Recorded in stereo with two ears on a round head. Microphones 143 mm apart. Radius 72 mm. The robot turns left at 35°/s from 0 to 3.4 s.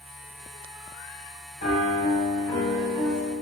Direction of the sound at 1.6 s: 50° left.